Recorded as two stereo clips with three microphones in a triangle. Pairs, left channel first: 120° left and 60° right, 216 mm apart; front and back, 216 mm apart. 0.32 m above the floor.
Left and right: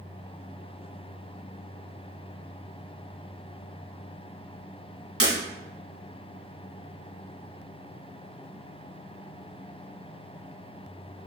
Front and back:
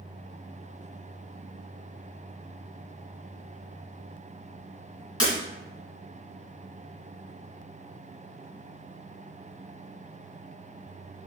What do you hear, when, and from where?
5.2 s breaking glass: 70° right, 1.7 m